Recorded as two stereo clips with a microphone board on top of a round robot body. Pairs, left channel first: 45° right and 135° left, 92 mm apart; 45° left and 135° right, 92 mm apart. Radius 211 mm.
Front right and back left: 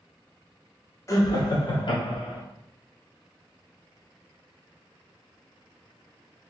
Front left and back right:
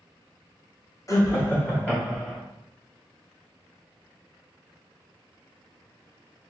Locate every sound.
1.1 s laughter: straight ahead, 1.6 m; by 2.4 s 40° right, 2.5 m